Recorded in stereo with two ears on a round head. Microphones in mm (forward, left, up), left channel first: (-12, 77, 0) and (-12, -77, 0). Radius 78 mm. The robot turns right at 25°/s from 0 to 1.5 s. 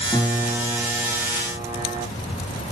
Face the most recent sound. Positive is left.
turn(degrees=-165)